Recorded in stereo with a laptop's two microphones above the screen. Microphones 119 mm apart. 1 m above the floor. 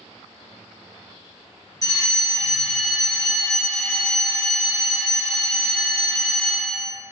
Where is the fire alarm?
30° left (ahead or behind), 1.8 m.